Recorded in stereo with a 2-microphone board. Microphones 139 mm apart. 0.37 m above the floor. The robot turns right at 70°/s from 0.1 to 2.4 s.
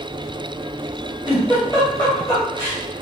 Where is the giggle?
20° right (ahead or behind), 1.0 m; by 2.8 s 25° left (ahead or behind), 1.0 m.